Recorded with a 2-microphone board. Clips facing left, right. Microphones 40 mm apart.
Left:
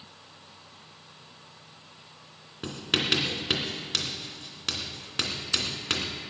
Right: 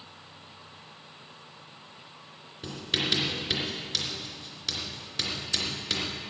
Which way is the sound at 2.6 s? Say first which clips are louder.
Left 2 dB; 45° left (ahead or behind).